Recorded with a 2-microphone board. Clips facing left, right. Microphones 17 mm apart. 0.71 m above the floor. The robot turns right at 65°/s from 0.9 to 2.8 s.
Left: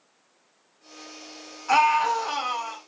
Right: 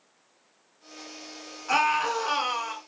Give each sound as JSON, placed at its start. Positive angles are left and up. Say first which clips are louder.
{"t": 1.7, "sound": "a scream", "louder": "left 4 dB", "azimuth_deg": 175, "distance_m": 1.7}